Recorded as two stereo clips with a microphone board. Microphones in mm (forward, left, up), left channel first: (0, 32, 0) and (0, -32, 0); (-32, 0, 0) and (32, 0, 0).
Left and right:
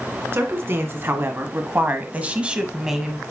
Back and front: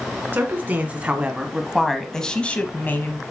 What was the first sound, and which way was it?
A woman speaking, 50° right.